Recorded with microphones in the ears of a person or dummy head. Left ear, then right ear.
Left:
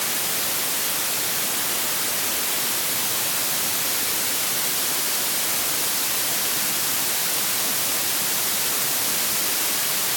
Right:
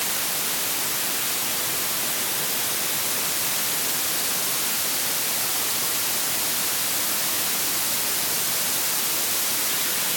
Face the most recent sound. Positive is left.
No sound to turn to.